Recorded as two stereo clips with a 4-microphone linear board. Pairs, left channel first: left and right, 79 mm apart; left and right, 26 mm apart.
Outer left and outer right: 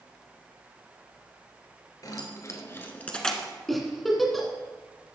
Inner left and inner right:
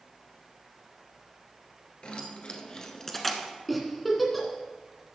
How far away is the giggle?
About 1.6 m.